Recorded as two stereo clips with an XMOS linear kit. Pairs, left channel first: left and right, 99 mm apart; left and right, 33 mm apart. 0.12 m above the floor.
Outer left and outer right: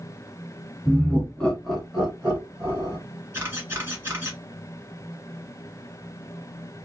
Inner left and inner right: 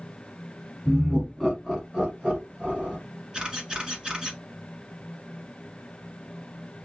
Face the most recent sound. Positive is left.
turn(degrees=-20)  # may be behind; listen again after turning